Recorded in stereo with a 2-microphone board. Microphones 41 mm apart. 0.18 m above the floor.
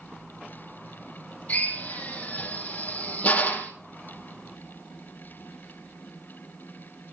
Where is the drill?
35° left (ahead or behind), 3 m.